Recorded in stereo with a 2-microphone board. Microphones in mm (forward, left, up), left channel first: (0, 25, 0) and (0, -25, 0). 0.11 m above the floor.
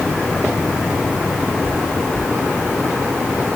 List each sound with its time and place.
Only background noise.